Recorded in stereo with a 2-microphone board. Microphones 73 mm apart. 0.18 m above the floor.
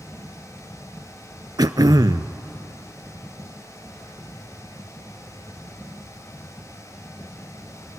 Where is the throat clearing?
70° right (ahead or behind), 0.5 m.